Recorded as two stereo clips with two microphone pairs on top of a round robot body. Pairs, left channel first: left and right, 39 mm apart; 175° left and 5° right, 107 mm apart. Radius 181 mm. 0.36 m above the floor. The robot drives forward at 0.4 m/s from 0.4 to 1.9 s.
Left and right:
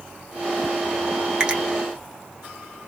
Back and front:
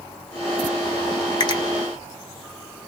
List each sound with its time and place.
1.4 s a finger snap: 150° right, 1.1 m; by 1.6 s 155° right, 1.1 m